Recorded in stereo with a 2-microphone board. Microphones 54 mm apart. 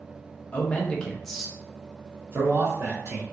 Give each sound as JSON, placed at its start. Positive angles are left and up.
{"t": 0.5, "sound": "a man speaking", "side_deg": 35, "distance_m": 0.9}